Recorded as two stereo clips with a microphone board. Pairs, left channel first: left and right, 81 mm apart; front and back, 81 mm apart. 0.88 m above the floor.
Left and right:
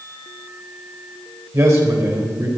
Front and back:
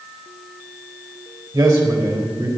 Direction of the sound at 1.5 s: 145° right.